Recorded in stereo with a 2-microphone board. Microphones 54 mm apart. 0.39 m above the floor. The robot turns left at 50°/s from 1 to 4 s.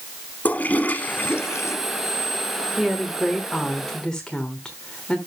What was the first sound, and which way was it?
A toilet flushing, 150° left.